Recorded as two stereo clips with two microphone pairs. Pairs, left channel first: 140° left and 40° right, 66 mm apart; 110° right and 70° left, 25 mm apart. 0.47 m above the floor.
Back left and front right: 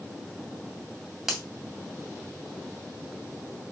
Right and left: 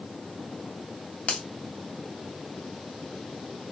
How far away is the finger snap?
About 2.5 m.